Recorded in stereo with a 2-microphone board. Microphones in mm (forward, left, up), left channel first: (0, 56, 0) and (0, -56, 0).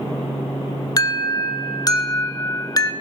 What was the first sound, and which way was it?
An alarm, 35° left (ahead or behind).